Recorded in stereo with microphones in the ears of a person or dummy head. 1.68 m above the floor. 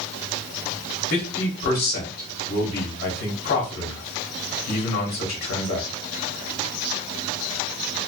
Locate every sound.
1.1 s a man speaking: 55° left (ahead or behind), 1.0 m